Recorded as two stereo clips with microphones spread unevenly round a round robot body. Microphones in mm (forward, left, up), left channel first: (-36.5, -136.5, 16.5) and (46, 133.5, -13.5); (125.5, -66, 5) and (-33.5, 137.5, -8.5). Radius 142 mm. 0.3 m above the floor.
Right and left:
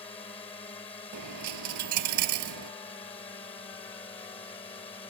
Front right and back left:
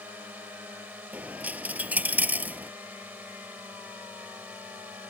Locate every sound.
0.0 s a drone: 160° right
1.1 s a dropped coin: 45° left